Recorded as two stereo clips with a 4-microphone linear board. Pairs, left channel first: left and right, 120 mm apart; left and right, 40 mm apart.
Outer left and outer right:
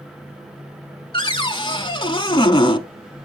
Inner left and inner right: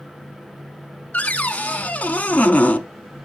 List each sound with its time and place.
1.1 s a cupboard door: 45° left (ahead or behind), 0.6 m